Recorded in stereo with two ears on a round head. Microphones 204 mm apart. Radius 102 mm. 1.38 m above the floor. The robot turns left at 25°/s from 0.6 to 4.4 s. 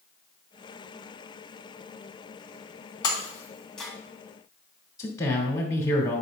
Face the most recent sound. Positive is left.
turn(degrees=15)  # may be behind; listen again after turning